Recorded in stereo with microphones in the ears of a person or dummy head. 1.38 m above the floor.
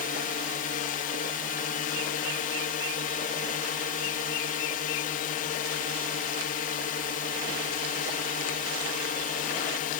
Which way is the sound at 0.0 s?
45° left (ahead or behind).